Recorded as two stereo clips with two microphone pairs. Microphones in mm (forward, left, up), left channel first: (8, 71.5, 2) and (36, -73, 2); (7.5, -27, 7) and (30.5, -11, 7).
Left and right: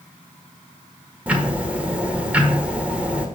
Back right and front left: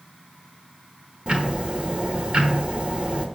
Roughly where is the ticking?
Ahead.